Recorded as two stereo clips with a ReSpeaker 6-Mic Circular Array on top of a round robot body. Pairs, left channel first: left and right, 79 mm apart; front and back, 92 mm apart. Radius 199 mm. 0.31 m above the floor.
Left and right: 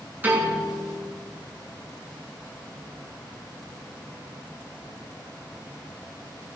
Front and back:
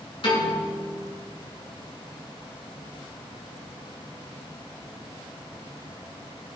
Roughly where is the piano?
Ahead right.